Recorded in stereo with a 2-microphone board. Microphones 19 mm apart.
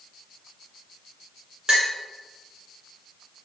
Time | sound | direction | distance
1.7 | a clink | 45° right (ahead or behind) | 1.5 m